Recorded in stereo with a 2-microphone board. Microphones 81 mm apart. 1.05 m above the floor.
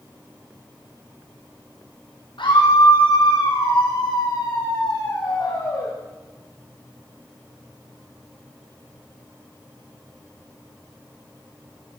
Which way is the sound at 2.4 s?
85° left.